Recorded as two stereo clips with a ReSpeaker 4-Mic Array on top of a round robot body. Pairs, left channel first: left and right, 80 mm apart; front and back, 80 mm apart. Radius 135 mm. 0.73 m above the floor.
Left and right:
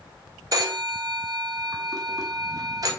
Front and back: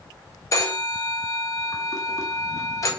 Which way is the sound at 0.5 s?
50° right.